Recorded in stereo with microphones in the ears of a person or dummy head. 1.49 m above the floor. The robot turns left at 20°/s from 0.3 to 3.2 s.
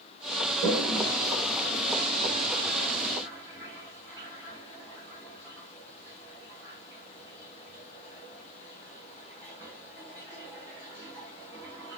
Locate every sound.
0.6 s a toilet flushing: 70° right (ahead or behind), 3 m; by 12.0 s 20° right (ahead or behind), 3 m